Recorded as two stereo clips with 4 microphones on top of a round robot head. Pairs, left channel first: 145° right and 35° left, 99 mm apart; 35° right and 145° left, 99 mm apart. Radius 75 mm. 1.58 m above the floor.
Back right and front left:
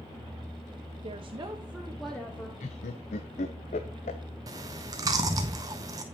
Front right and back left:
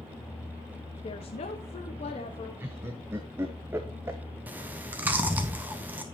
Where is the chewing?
80° left, 0.7 m.